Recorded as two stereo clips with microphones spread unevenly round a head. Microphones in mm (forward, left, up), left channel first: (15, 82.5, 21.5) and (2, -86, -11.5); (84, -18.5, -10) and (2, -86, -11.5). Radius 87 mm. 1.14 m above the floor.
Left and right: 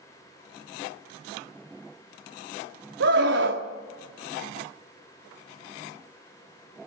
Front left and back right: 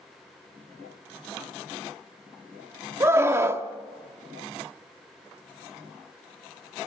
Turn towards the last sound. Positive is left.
turn(degrees=-75)